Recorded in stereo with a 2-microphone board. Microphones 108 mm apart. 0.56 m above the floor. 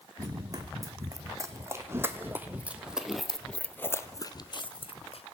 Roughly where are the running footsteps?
Right.